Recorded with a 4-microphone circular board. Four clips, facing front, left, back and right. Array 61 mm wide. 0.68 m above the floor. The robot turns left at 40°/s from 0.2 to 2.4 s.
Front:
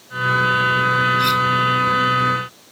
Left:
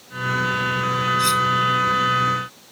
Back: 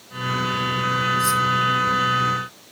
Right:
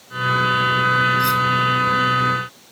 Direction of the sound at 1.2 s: 15° left.